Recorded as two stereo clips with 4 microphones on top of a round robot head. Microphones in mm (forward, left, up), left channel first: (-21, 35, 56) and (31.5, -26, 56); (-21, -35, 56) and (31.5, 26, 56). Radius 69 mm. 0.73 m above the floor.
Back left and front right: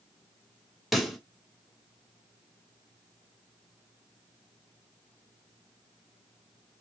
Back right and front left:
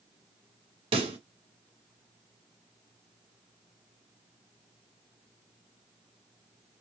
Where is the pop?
40° left, 1.2 m.